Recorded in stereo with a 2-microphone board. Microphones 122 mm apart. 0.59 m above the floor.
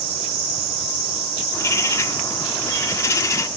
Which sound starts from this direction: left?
A bird, at 1.5 s.